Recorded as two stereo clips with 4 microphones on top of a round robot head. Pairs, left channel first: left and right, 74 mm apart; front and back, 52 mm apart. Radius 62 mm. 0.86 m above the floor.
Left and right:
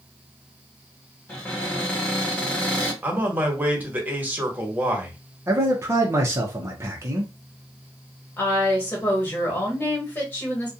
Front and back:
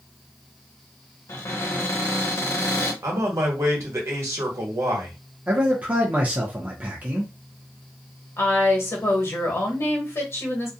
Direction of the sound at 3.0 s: 155° right.